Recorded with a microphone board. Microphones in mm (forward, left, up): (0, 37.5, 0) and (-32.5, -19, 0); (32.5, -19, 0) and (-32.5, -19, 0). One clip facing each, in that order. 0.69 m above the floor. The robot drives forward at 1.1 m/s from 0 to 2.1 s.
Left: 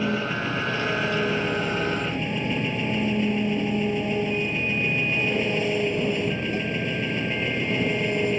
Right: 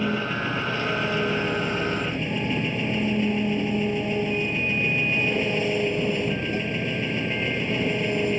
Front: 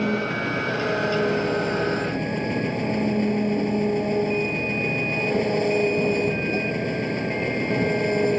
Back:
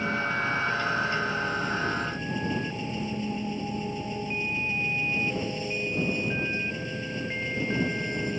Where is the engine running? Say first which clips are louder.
Even, front 3 dB; 25° right; by 8.4 s 30° right.